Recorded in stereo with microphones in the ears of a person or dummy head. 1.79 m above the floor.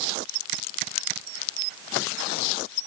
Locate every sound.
Only background noise.